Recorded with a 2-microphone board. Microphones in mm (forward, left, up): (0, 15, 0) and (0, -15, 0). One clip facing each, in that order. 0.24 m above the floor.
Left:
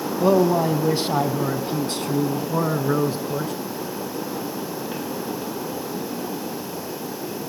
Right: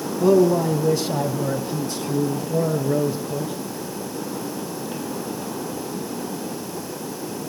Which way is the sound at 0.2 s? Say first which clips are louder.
Right 1 dB; 20° left (ahead or behind).